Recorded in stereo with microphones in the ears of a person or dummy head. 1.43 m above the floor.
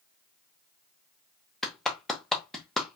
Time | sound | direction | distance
1.6 | a clap | centre (ahead or behind) | 0.8 m